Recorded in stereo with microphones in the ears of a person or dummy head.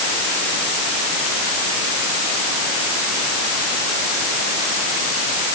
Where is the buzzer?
No buzzer in this recording.